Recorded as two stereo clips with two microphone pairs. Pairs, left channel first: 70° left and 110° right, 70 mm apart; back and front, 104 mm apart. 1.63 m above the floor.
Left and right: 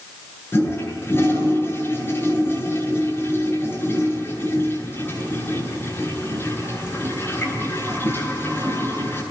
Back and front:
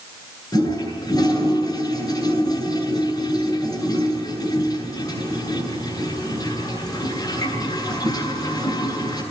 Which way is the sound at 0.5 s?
125° left.